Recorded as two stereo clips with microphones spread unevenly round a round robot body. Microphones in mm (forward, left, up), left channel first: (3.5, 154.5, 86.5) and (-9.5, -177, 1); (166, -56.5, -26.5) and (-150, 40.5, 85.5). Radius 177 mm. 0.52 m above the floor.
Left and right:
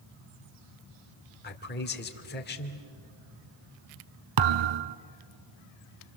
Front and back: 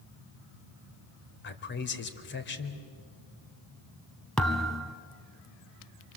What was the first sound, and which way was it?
A man speaking, 20° left.